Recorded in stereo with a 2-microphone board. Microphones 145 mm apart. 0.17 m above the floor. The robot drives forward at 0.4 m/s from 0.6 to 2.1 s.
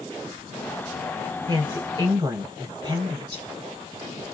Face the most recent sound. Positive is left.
turn(degrees=-35)  # may be behind; listen again after turning